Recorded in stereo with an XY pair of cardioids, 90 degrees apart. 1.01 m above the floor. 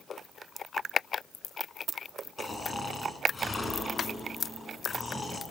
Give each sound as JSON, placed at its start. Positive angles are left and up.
{"t": 2.4, "sound": "snoring", "azimuth_deg": 35, "distance_m": 6.5}